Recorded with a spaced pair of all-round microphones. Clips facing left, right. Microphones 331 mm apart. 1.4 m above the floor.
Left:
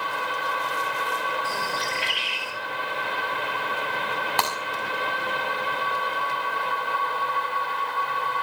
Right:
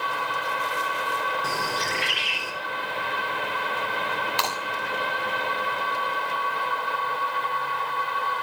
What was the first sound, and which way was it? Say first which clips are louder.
A bird: right 1 dB; 80° right.